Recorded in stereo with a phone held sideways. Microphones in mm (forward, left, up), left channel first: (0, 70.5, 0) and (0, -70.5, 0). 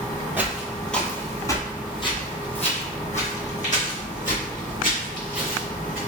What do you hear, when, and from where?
0.4 s footsteps: 10° right (ahead or behind), 1.2 m; by 6.0 s 70° left (ahead or behind), 3.5 m